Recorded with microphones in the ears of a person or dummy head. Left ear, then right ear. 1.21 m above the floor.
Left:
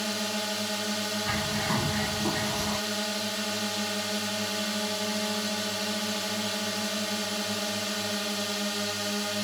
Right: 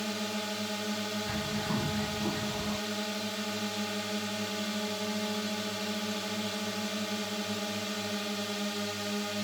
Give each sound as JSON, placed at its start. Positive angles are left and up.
{"t": 0.0, "sound": "a drone", "side_deg": 20}
{"t": 1.2, "sound": "a bird", "side_deg": 60}